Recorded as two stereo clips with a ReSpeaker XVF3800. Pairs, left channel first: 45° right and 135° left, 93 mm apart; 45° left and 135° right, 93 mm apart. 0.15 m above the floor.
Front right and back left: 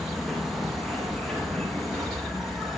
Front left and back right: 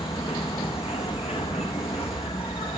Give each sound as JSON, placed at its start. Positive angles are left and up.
{"t": 0.0, "sound": "an insect", "azimuth_deg": 45, "distance_m": 4.0}